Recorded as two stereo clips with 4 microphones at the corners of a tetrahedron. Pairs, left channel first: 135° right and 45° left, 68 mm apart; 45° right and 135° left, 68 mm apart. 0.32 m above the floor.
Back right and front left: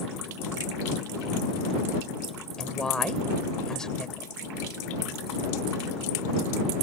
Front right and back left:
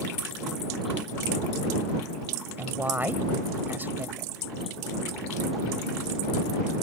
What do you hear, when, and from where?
2.6 s a woman speaking: 155° left